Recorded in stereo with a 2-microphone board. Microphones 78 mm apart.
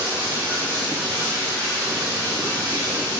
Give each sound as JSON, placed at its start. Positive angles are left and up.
{"t": 0.0, "sound": "running water", "side_deg": -30, "distance_m": 4.5}